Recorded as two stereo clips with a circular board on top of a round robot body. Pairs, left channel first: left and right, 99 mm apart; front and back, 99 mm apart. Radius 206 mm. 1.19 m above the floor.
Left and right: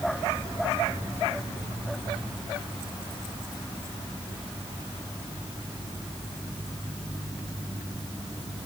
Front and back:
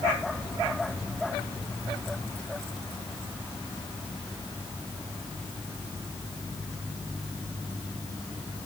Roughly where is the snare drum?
No snare drum in this recording.